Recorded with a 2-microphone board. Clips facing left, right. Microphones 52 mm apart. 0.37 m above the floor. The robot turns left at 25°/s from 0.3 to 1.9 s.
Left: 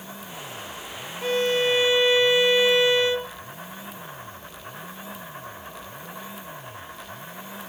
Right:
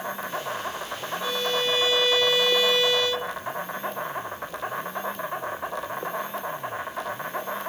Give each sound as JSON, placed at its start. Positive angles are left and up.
{"t": 0.0, "sound": "an insect", "azimuth_deg": -65, "distance_m": 3.0}
{"t": 1.2, "sound": "a violin", "side_deg": 40, "distance_m": 0.6}